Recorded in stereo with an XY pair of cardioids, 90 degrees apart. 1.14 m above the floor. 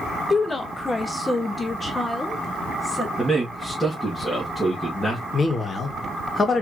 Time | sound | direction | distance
0.3 | a woman speaking | 30° left | 1.1 m
3.2 | a man speaking | straight ahead | 2 m
5.3 | a man speaking | 35° left | 2 m